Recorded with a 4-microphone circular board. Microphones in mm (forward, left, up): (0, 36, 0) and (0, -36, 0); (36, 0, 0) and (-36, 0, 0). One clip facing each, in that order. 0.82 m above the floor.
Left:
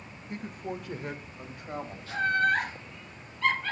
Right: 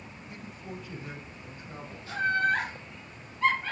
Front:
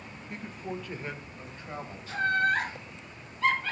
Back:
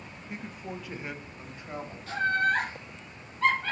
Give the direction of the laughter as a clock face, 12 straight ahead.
5 o'clock.